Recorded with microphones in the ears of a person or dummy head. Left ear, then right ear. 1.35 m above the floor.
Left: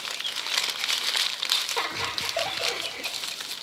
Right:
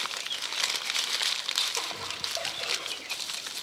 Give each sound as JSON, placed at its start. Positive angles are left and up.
{"t": 1.8, "sound": "laughter", "side_deg": 65, "distance_m": 1.0}